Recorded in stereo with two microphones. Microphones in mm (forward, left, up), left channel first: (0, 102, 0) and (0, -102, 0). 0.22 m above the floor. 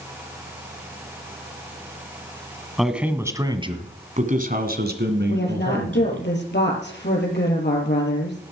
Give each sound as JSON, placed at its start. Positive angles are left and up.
{"t": 2.8, "sound": "a man speaking", "side_deg": 0, "distance_m": 1.5}
{"t": 5.3, "sound": "a woman speaking", "side_deg": 60, "distance_m": 4.5}